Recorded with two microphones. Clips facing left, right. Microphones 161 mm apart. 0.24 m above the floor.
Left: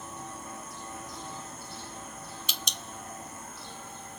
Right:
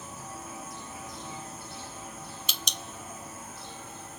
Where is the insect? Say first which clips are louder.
Even; 5° right (ahead or behind).